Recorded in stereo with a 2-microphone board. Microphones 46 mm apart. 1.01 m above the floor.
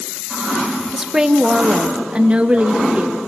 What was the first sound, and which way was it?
A woman speaking, 10° right (ahead or behind).